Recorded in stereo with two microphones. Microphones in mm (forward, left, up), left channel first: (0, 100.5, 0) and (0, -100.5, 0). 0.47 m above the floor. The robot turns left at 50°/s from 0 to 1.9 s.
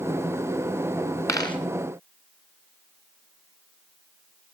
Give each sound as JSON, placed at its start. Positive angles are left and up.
{"t": 1.3, "sound": "a dropped coin", "side_deg": 15, "distance_m": 1.6}